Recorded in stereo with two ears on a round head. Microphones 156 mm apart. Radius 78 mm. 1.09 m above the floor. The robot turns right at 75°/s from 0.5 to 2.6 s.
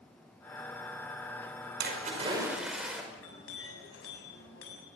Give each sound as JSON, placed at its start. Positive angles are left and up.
{"t": 1.8, "sound": "a splash", "azimuth_deg": -65, "distance_m": 5.5}
{"t": 3.1, "sound": "a clink", "side_deg": 80, "distance_m": 7.0}